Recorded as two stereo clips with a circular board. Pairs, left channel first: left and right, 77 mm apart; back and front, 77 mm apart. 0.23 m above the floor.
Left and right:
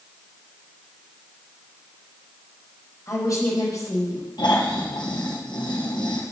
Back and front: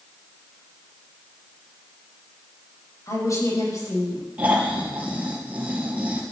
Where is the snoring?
70° left, 3 m.